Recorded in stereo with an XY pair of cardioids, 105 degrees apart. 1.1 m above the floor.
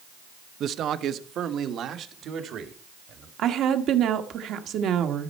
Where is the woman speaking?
70° right, 1.4 m.